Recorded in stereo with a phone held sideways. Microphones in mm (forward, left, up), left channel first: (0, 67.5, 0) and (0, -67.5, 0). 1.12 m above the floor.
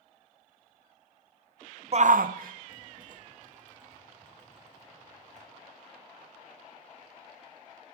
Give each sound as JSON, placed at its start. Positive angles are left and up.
{"t": 1.9, "sound": "a shout", "side_deg": -45, "distance_m": 0.6}